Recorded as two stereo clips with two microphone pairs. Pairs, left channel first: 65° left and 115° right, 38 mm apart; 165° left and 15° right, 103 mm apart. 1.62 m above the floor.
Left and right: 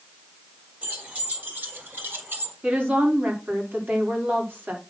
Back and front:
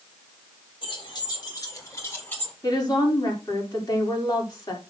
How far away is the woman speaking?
About 4 m.